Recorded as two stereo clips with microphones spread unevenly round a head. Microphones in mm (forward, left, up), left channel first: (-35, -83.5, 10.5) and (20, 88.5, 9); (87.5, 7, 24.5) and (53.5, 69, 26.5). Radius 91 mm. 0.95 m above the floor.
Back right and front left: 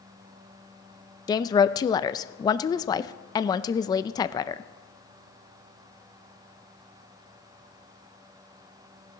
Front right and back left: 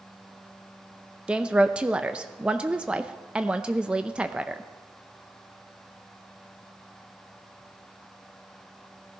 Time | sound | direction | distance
1.3 | a woman speaking | 170° right | 0.6 m